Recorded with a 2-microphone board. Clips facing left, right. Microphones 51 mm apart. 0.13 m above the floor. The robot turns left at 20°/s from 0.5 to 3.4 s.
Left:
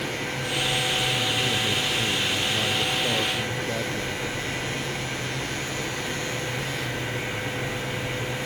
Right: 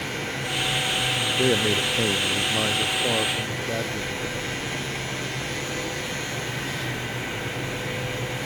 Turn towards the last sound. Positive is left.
turn(degrees=-170)